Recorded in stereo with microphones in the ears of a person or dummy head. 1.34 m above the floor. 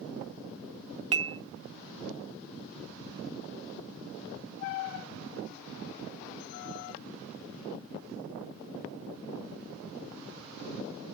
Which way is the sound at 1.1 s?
35° right (ahead or behind).